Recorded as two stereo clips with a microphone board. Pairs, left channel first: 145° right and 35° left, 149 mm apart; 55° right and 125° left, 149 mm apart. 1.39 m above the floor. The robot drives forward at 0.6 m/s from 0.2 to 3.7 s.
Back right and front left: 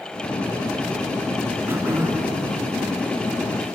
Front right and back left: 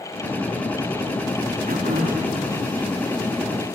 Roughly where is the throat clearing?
Left.